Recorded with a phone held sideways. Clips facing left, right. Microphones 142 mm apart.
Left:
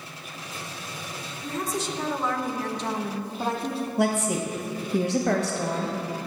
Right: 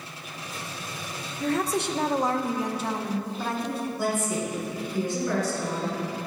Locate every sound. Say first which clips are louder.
1.4 s a woman speaking: right 5 dB; 70° right (ahead or behind), 0.8 m; by 3.9 s 30° left (ahead or behind), 0.9 m
4.0 s a woman speaking: left 5 dB; 65° left (ahead or behind), 1.1 m